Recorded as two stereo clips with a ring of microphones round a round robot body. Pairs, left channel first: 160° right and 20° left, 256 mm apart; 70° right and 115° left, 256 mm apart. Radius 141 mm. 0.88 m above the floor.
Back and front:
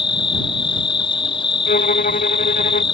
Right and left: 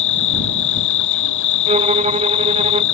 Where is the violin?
165° left.